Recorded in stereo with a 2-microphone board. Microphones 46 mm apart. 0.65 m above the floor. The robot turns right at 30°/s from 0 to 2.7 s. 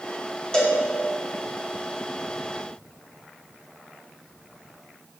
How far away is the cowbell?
About 1.2 m.